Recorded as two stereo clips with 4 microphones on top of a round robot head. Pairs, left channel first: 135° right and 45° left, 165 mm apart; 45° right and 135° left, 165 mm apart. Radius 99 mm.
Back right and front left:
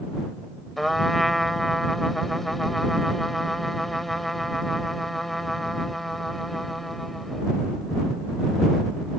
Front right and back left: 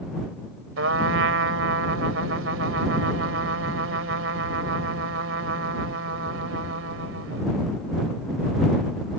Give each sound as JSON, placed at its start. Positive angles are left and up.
{"t": 0.8, "sound": "a trumpet", "azimuth_deg": 135}